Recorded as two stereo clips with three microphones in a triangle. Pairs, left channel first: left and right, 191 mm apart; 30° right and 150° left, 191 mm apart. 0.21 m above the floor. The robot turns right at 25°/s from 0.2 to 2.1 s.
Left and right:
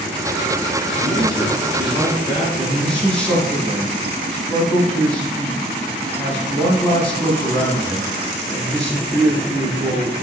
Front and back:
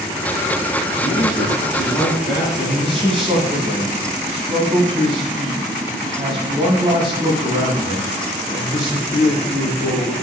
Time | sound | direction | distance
1.0 | a man speaking | 65° right | 1.3 m
2.5 | a man speaking | 165° left | 1.2 m